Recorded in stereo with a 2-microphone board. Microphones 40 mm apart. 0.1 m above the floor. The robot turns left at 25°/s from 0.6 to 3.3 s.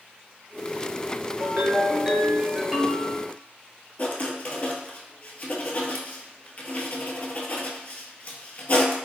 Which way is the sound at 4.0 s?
40° left (ahead or behind).